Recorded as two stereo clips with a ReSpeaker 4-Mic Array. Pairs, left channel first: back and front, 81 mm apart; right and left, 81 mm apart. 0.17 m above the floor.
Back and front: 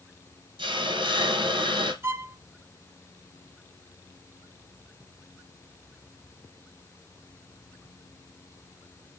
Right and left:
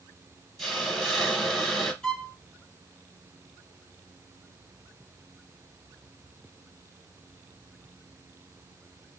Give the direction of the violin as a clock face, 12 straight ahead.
12 o'clock.